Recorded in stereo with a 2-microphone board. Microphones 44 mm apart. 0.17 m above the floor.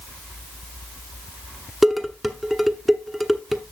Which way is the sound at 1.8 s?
5° right (ahead or behind).